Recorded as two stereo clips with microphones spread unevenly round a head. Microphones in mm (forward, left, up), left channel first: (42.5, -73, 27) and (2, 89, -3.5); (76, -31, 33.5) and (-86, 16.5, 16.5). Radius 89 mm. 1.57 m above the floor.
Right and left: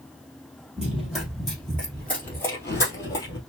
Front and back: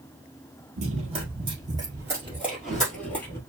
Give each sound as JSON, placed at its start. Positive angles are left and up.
{"t": 0.8, "sound": "running footsteps", "azimuth_deg": -160, "distance_m": 2.0}